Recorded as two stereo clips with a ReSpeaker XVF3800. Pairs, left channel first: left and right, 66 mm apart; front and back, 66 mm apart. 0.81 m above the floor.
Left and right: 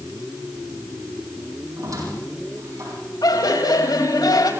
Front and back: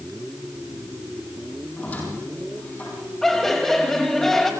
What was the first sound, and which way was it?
A squeak, 65° right.